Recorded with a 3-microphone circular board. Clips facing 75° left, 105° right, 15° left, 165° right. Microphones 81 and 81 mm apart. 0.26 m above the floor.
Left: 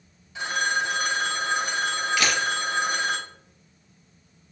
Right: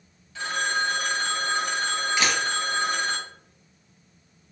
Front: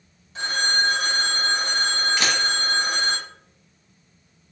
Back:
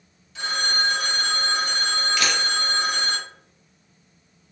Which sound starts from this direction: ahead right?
A camera shutter, at 2.2 s.